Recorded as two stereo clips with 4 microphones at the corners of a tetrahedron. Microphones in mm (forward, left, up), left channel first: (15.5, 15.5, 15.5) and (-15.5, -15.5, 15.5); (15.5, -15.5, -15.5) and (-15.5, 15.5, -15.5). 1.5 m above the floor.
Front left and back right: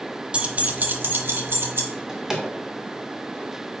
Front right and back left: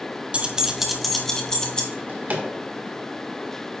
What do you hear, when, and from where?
0.3 s keys jangling: 175° left, 0.8 m; by 1.8 s 115° right, 1.3 m
1.9 s a drawer: 150° left, 1.4 m